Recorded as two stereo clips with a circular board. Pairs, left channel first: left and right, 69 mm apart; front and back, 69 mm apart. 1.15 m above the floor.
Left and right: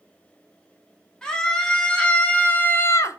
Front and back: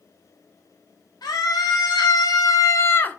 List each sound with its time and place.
1.2 s a scream: 15° left, 3 m; by 3.2 s 70° left, 0.7 m